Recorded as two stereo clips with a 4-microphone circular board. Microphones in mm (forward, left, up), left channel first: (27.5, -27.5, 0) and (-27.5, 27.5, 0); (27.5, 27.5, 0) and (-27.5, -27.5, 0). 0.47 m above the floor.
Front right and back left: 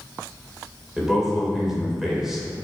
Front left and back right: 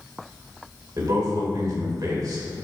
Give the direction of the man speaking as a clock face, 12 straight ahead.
5 o'clock.